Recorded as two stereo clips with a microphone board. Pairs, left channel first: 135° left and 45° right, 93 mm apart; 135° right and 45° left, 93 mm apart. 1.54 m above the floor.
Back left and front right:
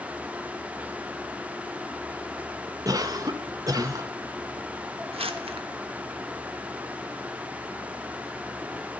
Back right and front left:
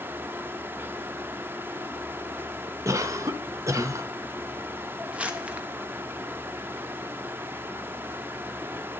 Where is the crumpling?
30° right, 0.8 m.